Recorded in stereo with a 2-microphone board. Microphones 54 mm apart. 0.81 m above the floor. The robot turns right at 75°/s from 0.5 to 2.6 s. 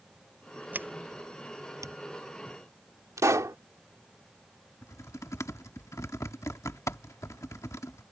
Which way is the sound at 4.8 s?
65° left (ahead or behind).